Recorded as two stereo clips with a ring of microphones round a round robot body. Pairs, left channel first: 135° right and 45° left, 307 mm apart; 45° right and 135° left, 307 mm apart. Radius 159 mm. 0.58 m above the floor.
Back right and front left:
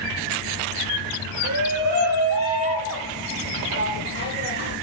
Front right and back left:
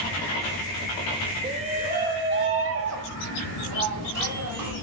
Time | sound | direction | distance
1.4 | a shout | 65° left | 2.5 m